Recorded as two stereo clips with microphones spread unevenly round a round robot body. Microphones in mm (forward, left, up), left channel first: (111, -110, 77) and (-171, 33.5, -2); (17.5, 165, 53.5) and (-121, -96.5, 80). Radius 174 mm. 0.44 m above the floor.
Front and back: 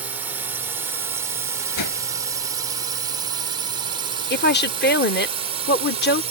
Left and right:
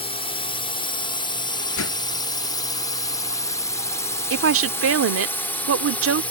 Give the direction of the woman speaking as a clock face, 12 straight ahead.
3 o'clock.